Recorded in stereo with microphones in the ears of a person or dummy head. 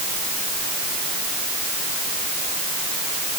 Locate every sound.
Only background noise.